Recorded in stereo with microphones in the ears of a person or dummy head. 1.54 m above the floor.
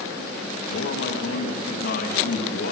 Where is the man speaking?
60° left (ahead or behind), 2.5 m.